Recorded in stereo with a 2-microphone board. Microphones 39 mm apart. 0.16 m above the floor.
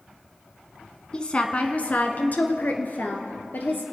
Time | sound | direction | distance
1.1 | a woman speaking | 25° left (ahead or behind) | 1.1 m